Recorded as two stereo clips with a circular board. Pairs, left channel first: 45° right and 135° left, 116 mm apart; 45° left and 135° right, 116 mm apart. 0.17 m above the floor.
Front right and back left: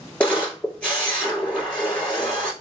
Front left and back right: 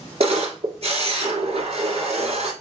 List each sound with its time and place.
0.2 s a camera shutter: 125° right, 1.5 m